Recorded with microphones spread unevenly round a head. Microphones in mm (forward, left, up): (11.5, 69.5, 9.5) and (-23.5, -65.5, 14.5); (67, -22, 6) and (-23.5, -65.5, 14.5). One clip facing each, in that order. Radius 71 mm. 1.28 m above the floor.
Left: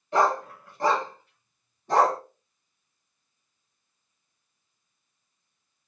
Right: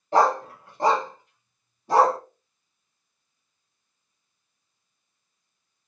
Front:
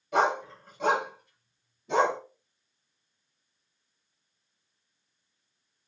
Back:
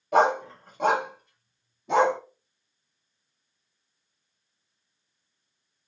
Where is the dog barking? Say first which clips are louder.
Right 3 dB, back 5 dB; 150° right, 1.5 m; by 2.2 s 175° left, 2 m.